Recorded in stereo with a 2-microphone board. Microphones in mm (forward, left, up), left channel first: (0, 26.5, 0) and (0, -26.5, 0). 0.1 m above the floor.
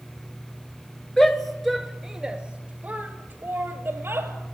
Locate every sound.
1.2 s a shout: 10° left (ahead or behind), 1.6 m; by 4.3 s 50° right (ahead or behind), 2.5 m